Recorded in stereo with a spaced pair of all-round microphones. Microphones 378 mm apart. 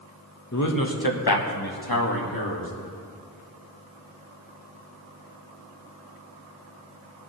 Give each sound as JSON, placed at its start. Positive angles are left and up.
{"t": 0.5, "sound": "a man speaking", "side_deg": 45, "distance_m": 1.3}